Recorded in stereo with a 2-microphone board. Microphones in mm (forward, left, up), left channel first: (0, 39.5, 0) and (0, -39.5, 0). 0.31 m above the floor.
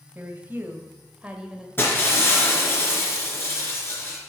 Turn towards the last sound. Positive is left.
turn(degrees=30)  # may be behind; listen again after turning